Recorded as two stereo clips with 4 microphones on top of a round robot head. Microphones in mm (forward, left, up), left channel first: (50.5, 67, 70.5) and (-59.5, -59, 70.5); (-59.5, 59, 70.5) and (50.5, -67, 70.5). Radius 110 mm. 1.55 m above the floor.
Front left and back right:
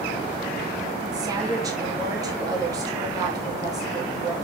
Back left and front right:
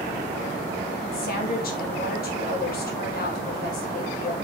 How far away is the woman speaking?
About 2.5 m.